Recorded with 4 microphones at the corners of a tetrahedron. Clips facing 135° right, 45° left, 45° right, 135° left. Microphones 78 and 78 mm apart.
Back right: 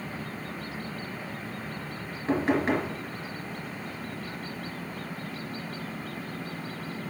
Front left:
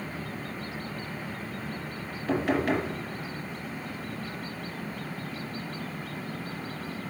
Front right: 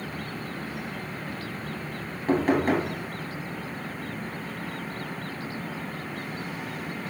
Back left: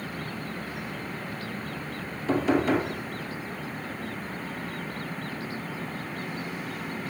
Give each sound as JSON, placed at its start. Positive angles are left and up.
{"t": 2.3, "sound": "knocking", "azimuth_deg": -75, "distance_m": 2.5}